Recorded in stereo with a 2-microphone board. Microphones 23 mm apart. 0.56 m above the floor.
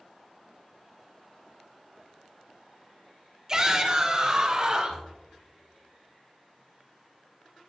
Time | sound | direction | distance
3.5 | a shout | 30° right (ahead or behind) | 1.5 m